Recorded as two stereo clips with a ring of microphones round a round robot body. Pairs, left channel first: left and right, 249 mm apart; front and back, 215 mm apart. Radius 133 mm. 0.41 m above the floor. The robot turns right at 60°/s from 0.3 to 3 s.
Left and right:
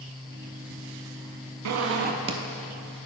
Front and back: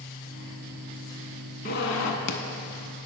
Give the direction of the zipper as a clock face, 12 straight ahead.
2 o'clock.